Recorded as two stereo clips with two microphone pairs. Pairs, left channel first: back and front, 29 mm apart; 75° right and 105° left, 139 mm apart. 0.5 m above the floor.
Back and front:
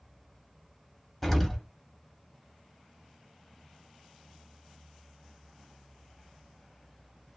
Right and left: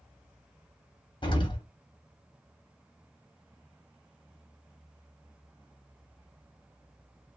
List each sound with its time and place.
1.2 s an explosion: 95° right, 0.9 m